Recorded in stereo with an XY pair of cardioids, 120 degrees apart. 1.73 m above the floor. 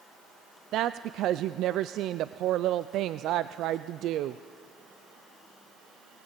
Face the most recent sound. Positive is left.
turn(degrees=-70)